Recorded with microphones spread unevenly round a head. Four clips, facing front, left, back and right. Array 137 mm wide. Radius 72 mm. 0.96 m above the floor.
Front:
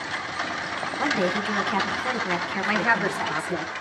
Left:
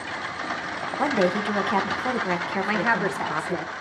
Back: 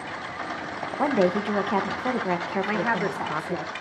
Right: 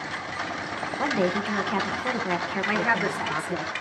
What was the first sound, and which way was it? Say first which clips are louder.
A woman speaking: left 3 dB, back 4 dB; 155° left.